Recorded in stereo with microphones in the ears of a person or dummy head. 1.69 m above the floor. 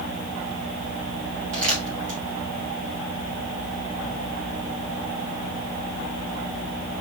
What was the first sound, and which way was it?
Crumpling, 80° right.